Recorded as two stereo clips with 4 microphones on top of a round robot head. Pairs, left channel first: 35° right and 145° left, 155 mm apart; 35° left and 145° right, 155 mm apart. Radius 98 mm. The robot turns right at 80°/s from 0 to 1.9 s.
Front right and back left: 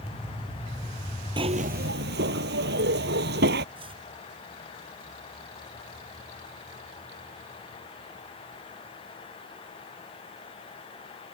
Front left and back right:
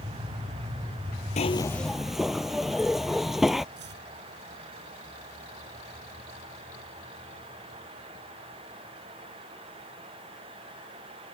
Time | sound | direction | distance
1.4 | a zipper | 85° left | ?
3.8 | chopping | 155° right | ?